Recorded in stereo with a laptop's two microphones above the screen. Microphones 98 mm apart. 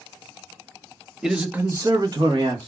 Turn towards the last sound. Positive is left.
turn(degrees=-50)  # may be behind; listen again after turning